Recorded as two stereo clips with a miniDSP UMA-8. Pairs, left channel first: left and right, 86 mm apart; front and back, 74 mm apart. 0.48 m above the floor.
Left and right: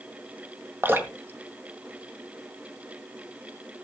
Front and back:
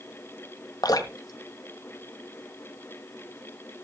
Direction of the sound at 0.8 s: 25° right.